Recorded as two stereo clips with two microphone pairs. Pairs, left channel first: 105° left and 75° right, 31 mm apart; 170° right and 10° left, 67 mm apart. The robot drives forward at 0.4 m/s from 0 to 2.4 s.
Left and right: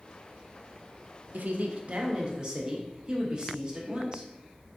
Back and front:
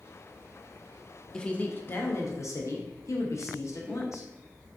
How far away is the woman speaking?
About 0.5 m.